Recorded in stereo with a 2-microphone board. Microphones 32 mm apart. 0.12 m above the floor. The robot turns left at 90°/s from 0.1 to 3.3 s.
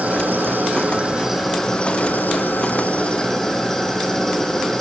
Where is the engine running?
60° right, 4 m; by 4.8 s 15° left, 4 m.